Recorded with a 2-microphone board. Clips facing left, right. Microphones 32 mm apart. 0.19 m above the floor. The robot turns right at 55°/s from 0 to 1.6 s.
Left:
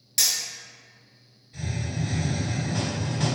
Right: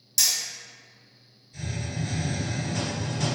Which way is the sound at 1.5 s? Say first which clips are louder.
Left 2 dB; 30° left (ahead or behind).